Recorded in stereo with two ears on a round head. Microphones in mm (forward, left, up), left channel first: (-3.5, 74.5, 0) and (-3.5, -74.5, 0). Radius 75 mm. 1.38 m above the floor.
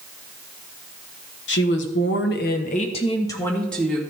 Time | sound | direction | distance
1.5 | a woman speaking | 75° left (ahead or behind) | 1.6 m